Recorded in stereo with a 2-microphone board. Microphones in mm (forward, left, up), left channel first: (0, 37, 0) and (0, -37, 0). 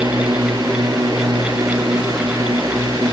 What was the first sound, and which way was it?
A drone, 75° right (ahead or behind).